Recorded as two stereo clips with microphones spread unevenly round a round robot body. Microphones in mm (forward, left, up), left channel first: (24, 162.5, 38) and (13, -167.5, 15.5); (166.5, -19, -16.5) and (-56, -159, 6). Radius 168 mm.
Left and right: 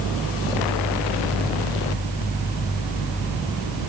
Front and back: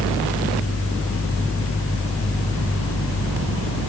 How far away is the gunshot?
No gunshot in this recording.